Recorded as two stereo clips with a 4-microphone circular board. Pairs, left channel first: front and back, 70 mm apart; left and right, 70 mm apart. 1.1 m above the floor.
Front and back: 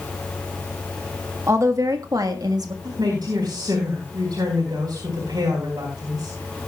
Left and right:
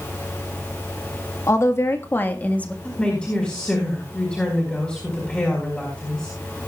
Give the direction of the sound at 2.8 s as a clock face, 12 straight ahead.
7 o'clock.